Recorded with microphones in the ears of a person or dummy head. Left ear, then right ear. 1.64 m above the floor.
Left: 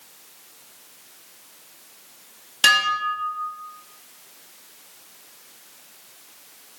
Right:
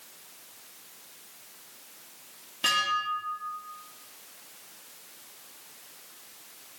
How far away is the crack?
I don't hear a crack.